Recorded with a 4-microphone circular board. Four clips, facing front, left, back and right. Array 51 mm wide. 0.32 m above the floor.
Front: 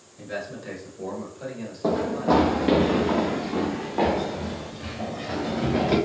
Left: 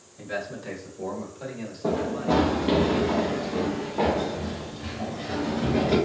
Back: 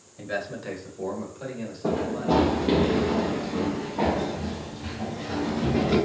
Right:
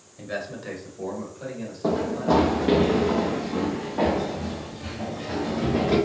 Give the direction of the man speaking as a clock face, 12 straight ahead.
4 o'clock.